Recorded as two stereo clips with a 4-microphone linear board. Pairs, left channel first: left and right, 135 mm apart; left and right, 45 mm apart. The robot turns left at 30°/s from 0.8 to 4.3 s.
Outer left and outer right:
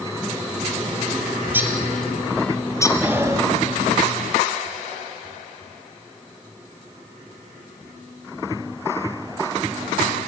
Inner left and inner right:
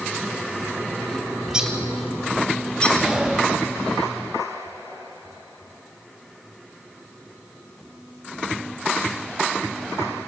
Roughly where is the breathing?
Centre.